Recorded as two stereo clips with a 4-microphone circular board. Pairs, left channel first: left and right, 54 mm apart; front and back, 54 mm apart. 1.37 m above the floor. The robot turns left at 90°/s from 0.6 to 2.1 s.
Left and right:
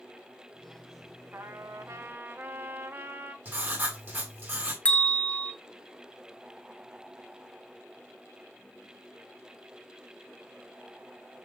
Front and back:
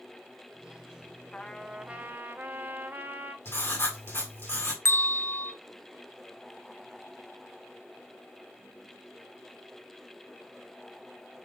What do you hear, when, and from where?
1.3 s a trumpet: 60° right, 0.5 m; by 3.4 s 130° right, 0.5 m
3.5 s writing: 40° right, 2.0 m
4.8 s a bell: 30° left, 0.7 m